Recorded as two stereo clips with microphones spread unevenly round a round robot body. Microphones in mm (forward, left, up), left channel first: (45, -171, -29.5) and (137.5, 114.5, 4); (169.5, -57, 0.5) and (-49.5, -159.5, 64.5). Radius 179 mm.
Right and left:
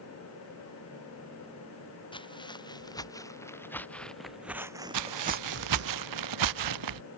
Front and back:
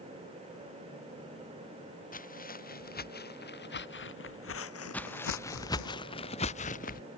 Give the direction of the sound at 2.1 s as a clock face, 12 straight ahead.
1 o'clock.